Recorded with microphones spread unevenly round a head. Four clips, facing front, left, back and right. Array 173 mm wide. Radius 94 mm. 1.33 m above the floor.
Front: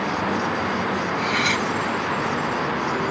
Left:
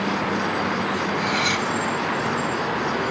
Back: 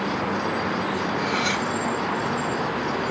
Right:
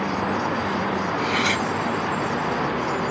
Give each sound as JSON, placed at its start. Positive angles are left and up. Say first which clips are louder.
{"t": 1.2, "sound": "cutlery clinking", "louder": "even, front 2 dB", "azimuth_deg": -55, "distance_m": 1.7}